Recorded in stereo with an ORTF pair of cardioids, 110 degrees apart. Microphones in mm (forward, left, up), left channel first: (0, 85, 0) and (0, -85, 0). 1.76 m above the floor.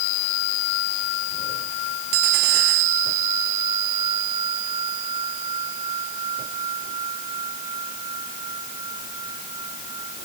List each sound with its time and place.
Only background noise.